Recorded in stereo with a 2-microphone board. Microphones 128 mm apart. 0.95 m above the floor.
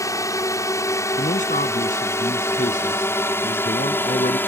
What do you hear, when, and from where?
0.0 s a drone: 25° left (ahead or behind); by 4.5 s 15° left (ahead or behind)
1.2 s a man speaking: 75° left (ahead or behind)